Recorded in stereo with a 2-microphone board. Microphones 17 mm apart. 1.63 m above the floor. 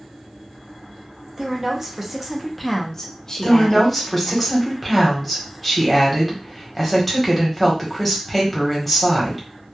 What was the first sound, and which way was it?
A woman speaking, 35° right (ahead or behind).